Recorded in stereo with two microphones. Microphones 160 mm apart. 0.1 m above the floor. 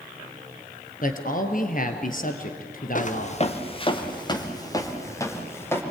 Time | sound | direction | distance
1.0 | a man speaking | 55° left (ahead or behind) | 2 m
3.0 | footsteps | 50° left (ahead or behind) | 1.8 m